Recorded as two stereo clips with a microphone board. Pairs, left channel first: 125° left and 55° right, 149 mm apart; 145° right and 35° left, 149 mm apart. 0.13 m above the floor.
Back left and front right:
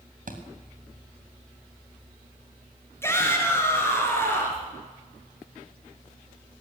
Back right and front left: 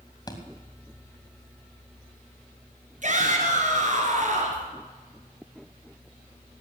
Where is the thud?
80° right, 3 m.